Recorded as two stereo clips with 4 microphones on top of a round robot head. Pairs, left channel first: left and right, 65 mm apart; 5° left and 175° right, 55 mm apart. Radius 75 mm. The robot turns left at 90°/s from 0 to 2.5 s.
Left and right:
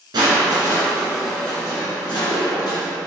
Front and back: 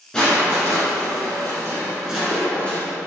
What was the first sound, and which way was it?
Crushing, 75° right.